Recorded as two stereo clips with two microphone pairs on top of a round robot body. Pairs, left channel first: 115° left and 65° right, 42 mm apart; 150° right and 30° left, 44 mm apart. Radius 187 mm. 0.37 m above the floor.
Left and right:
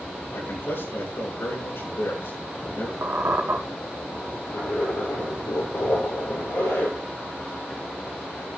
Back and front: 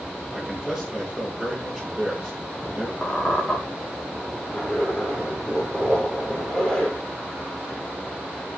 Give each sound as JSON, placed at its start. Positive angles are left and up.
{"t": 0.3, "sound": "a man speaking", "azimuth_deg": 110, "distance_m": 9.5}
{"t": 3.0, "sound": "a squeak", "azimuth_deg": -85, "distance_m": 2.0}
{"t": 4.4, "sound": "a zipper", "azimuth_deg": 130, "distance_m": 6.5}